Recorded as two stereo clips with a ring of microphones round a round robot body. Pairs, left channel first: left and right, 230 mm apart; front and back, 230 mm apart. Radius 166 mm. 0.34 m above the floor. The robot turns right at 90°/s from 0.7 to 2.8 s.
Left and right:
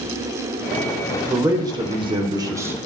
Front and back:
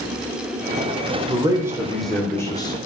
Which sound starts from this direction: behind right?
A man speaking, at 1.3 s.